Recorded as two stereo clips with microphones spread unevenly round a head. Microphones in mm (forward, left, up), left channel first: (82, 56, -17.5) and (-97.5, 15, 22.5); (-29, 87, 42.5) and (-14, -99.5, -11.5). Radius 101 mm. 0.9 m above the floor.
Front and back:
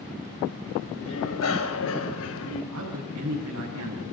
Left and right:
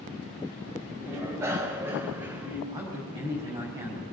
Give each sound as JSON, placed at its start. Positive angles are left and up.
{"t": 1.1, "sound": "a bicycle bell", "azimuth_deg": -10, "distance_m": 3.5}
{"t": 2.7, "sound": "a man speaking", "azimuth_deg": -155, "distance_m": 5.5}